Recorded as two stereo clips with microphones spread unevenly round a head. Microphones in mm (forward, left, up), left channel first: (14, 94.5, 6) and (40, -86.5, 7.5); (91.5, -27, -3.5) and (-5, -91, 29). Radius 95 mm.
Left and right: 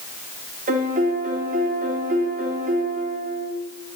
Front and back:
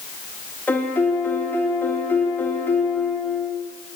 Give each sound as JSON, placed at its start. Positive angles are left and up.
{"t": 0.7, "sound": "a piano", "azimuth_deg": -40, "distance_m": 3.0}